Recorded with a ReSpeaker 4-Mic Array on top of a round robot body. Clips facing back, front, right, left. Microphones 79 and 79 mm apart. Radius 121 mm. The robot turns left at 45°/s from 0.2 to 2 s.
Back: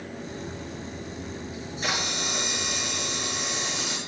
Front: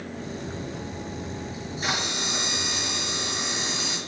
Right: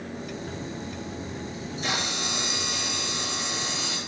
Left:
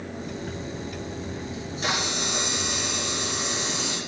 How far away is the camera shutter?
About 3.5 m.